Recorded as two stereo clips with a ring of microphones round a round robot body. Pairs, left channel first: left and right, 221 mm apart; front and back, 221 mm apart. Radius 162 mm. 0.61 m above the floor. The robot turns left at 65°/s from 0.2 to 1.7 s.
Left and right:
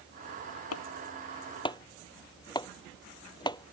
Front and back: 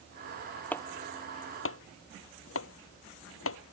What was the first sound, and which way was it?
Chopping, 85° left.